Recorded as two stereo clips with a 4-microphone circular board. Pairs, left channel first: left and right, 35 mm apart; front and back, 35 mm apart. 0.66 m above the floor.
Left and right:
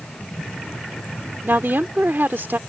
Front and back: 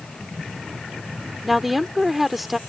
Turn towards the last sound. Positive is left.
turn(degrees=-90)